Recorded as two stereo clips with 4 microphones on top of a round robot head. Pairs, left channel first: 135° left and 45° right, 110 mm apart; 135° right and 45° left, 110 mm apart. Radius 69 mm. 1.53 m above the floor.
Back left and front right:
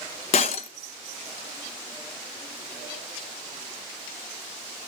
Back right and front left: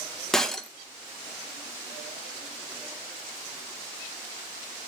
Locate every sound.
0.3 s breaking glass: 140° left, 0.8 m